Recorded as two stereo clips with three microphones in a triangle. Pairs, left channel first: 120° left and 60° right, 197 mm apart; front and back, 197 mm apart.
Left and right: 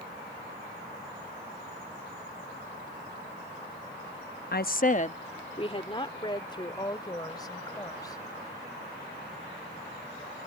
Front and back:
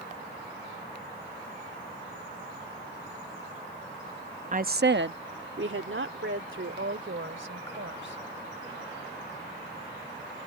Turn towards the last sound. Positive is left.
turn(degrees=-170)